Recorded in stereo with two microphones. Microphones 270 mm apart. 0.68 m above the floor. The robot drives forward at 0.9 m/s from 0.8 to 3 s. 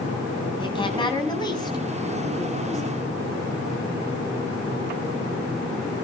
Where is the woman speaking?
20° left (ahead or behind), 4 m; by 3.0 s 10° left (ahead or behind), 6 m.